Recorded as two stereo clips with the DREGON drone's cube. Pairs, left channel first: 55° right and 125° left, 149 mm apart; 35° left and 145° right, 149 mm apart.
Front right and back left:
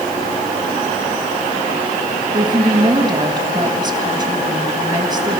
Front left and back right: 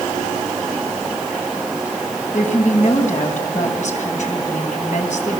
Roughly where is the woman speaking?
Ahead left.